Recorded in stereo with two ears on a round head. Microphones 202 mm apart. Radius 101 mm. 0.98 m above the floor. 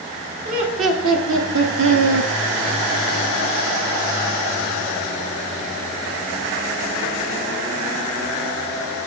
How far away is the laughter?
About 3 m.